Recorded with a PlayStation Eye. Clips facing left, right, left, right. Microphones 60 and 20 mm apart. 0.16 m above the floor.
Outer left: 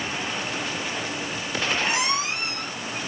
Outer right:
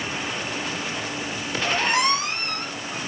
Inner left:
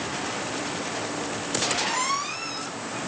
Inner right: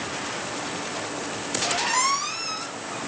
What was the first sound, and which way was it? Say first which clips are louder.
A squeak: outer right 3 dB, inner right 3 dB; 50° right (ahead or behind).